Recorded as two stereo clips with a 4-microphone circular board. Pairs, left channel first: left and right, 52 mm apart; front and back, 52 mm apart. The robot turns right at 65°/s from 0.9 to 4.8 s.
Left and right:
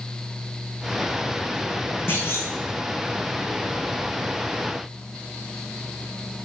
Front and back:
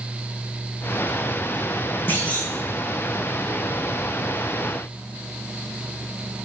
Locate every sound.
2.1 s a clunk: 50° left, 4.5 m; by 2.5 s 75° left, 4.5 m